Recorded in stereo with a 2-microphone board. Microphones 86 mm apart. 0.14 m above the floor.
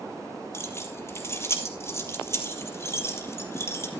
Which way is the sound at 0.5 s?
30° left (ahead or behind).